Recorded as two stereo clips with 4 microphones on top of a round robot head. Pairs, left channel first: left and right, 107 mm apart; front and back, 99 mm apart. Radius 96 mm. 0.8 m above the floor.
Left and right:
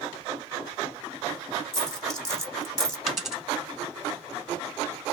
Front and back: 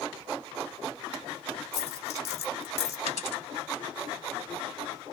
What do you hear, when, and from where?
1.7 s a dropped coin: 5° left, 1.2 m
3.1 s a dropped coin: straight ahead, 1.3 m